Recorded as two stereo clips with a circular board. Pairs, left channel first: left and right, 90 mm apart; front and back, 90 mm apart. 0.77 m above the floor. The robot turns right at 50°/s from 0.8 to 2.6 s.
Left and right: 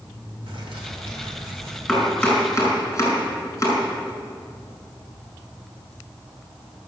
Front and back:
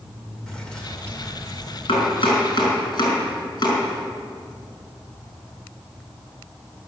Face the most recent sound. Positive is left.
turn(degrees=30)